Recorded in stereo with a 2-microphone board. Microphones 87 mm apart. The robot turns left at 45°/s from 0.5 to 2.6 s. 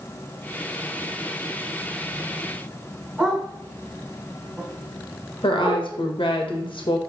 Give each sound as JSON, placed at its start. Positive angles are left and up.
{"t": 3.2, "sound": "a dog barking", "side_deg": 0, "distance_m": 4.5}
{"t": 5.4, "sound": "a woman speaking", "side_deg": 80, "distance_m": 1.8}